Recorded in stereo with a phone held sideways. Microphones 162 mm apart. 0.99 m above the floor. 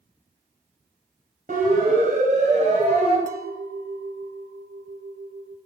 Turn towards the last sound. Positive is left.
turn(degrees=-65)  # may be behind; listen again after turning